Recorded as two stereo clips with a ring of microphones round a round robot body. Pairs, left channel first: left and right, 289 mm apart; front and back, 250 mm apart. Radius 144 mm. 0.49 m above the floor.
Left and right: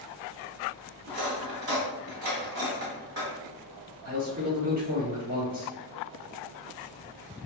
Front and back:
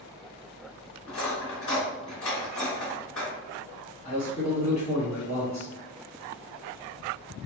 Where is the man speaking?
50° right, 1.2 m.